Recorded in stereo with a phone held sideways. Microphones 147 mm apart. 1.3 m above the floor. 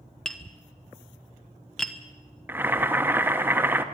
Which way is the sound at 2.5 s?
15° right (ahead or behind).